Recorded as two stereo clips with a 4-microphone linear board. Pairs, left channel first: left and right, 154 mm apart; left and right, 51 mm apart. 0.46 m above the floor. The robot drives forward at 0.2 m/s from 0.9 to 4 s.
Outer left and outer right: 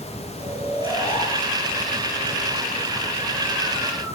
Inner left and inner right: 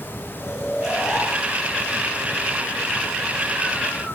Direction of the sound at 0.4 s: 80° left.